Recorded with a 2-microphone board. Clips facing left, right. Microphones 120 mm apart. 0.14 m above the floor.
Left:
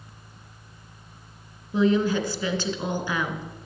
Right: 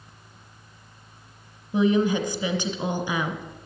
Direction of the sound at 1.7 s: 15° right (ahead or behind).